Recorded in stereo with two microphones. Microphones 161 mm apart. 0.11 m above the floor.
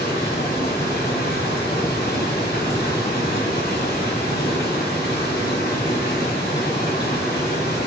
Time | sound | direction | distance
0.0 | running water | 85° left | 3 m